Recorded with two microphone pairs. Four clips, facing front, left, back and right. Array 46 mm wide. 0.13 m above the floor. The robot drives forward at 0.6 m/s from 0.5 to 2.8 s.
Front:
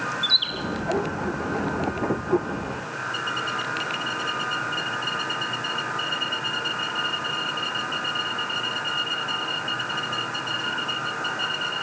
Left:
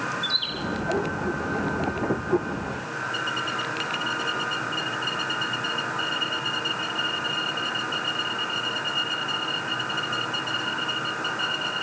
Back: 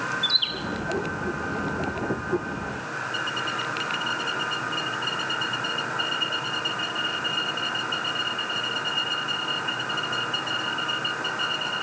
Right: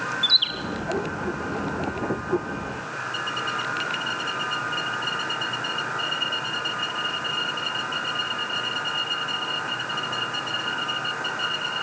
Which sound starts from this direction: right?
A bird, at 0.2 s.